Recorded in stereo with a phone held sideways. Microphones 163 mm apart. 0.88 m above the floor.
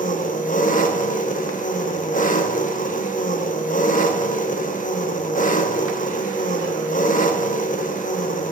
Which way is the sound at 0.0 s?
55° left (ahead or behind).